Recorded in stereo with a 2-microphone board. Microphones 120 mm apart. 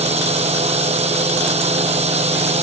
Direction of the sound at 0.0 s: 65° right (ahead or behind).